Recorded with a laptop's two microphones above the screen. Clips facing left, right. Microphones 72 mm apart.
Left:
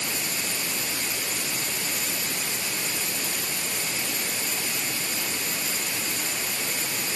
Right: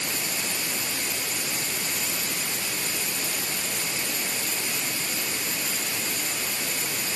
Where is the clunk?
I don't hear a clunk.